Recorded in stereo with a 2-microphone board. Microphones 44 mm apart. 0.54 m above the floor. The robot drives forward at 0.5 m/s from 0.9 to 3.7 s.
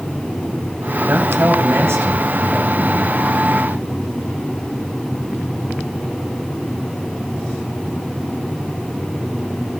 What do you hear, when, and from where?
1.0 s a man speaking: 75° right (ahead or behind), 3 m; by 3.1 s 65° right (ahead or behind), 3 m